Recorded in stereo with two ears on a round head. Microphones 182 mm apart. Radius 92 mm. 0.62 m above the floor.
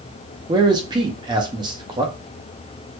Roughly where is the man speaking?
Right.